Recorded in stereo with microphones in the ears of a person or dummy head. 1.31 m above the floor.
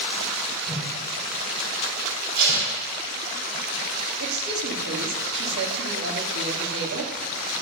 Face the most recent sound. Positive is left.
turn(degrees=-80)